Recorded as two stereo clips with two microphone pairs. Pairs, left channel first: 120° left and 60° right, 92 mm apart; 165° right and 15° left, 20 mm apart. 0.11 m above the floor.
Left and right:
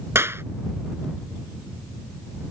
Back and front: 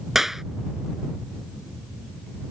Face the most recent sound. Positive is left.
turn(degrees=-50)